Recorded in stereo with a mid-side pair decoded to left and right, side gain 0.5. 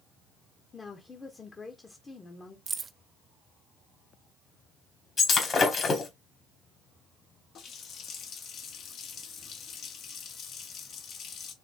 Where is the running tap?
65° left, 1.3 m.